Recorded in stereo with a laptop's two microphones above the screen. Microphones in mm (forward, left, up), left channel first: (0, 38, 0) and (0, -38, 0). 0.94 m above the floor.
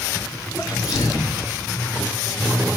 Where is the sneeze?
50° left (ahead or behind), 2.5 m.